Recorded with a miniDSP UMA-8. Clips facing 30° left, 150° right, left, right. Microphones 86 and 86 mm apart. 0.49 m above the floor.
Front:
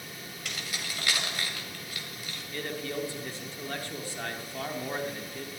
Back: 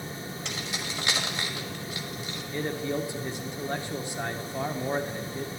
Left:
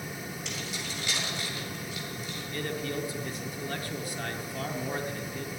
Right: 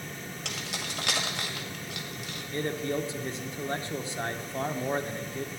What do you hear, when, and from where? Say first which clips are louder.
0.5 s keys jangling: back 1 dB, right 3 dB; 85° right, 1.9 m
2.5 s a man speaking: back 5 dB, right 4 dB; 105° right, 0.9 m